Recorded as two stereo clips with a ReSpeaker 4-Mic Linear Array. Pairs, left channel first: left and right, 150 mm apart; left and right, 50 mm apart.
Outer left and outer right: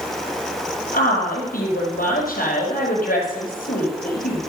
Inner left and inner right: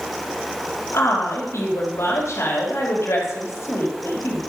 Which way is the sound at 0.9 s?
70° left (ahead or behind).